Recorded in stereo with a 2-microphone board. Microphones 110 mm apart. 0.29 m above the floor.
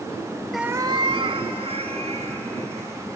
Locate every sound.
0.5 s a cat meowing: 5° left (ahead or behind), 0.5 m; by 3.1 s 70° right (ahead or behind), 4 m